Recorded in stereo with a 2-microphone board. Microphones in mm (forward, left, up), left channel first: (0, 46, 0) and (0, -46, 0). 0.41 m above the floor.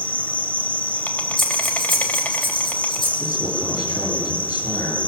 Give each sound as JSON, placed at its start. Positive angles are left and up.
{"t": 0.0, "sound": "an insect", "side_deg": 15, "distance_m": 1.3}
{"t": 1.4, "sound": "breathing", "side_deg": 60, "distance_m": 5.5}
{"t": 3.2, "sound": "a man speaking", "side_deg": 40, "distance_m": 9.5}